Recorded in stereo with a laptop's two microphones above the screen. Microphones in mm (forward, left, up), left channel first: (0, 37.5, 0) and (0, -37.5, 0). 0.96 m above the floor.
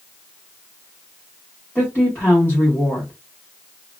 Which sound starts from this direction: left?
A woman speaking, at 1.8 s.